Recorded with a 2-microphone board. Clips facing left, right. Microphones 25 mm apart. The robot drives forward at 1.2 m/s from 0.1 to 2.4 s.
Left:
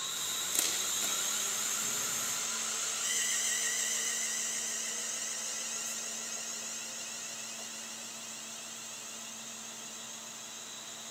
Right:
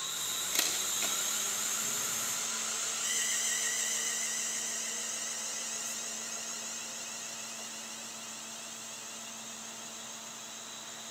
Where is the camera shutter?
20° right (ahead or behind), 6.5 m.